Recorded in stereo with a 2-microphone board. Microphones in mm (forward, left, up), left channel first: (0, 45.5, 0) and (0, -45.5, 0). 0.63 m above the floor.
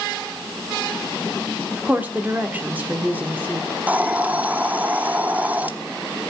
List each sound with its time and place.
1.7 s a woman speaking: 20° right (ahead or behind), 1.6 m
3.7 s a hiss: 20° right (ahead or behind), 0.7 m